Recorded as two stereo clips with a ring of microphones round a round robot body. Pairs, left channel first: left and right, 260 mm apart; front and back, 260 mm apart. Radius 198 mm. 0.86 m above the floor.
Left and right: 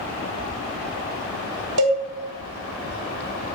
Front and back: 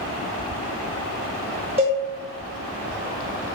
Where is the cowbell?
110° right, 0.6 m.